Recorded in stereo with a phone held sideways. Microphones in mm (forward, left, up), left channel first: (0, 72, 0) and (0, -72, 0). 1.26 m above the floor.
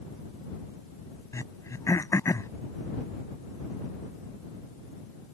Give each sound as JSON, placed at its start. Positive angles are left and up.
{"t": 1.3, "sound": "throat clearing", "side_deg": 20}